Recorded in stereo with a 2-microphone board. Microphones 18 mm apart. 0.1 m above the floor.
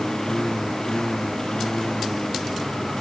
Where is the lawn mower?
35° left (ahead or behind).